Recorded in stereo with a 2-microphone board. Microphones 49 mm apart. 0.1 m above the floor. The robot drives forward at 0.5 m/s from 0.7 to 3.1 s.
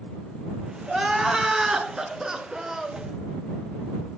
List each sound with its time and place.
0.9 s crying: 10° right (ahead or behind), 1.0 m